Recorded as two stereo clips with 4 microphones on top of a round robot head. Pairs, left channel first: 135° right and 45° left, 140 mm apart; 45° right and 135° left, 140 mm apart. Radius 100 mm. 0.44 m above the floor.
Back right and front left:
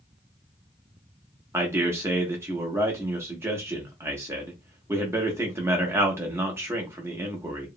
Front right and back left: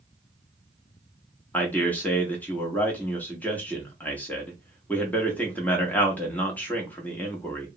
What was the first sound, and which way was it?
A man speaking, 15° left.